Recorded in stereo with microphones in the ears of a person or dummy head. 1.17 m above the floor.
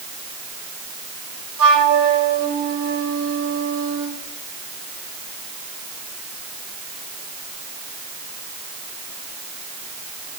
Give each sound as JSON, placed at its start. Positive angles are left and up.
{"t": 1.6, "sound": "a flute", "side_deg": -85, "distance_m": 5.5}